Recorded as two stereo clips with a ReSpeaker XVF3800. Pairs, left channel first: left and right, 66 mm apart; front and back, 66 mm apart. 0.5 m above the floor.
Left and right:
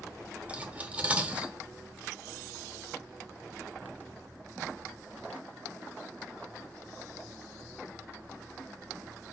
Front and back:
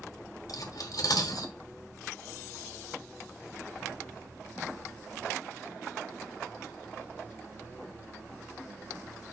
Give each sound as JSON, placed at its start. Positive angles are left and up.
{"t": 0.5, "sound": "cutlery clinking", "azimuth_deg": -20, "distance_m": 1.3}